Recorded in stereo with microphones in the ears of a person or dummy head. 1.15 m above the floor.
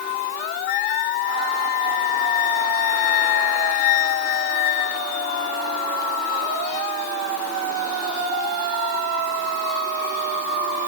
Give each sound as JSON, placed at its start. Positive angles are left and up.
{"t": 0.7, "sound": "a flute", "side_deg": 55}